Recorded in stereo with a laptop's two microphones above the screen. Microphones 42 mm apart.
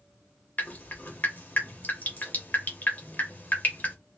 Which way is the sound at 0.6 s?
45° left (ahead or behind).